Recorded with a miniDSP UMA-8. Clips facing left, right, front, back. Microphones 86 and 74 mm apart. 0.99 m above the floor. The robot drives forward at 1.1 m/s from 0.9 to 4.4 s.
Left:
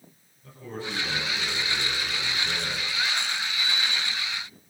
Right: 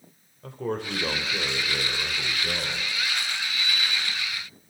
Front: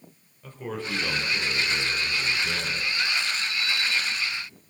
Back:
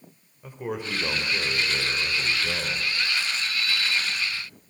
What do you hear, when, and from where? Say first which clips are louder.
0.4 s a man speaking: right 6 dB, back 2 dB; 105° right, 4 m; by 2.9 s 130° right, 5 m
3.4 s a sliding door: even, even; 130° right, 2.5 m; by 4.6 s 145° right, 3 m